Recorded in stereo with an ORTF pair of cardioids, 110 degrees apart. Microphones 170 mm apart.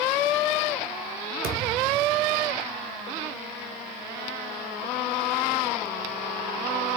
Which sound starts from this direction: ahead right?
A thud, at 1.4 s.